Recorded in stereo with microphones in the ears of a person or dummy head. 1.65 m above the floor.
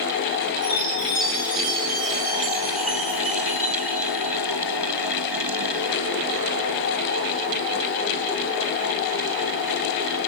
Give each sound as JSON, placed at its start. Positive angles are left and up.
{"t": 0.6, "sound": "a chime", "side_deg": -45, "distance_m": 6.5}